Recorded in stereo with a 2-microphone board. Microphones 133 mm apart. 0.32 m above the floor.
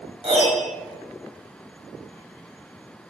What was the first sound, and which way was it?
A piano, 45° right (ahead or behind).